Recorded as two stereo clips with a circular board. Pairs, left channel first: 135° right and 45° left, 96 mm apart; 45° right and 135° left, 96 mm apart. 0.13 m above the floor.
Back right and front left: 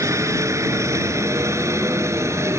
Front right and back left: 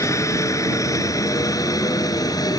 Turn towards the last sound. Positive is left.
turn(degrees=-10)